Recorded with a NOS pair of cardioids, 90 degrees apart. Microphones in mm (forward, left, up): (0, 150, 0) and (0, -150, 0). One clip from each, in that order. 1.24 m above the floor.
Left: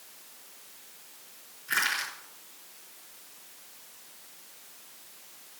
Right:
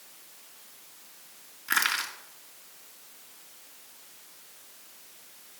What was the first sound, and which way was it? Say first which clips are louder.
Crushing: right 2 dB; 55° right.